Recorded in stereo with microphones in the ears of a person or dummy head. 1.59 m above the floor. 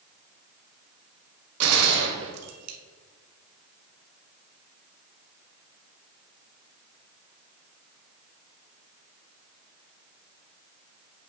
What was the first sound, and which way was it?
A gunshot, 75° right (ahead or behind).